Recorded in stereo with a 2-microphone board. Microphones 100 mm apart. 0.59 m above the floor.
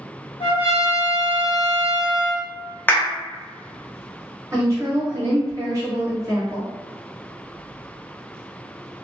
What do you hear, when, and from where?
0.4 s a trumpet: 60° left (ahead or behind), 1.4 m
2.9 s a clap: 20° left (ahead or behind), 0.6 m
4.5 s a woman speaking: 30° right (ahead or behind), 1.4 m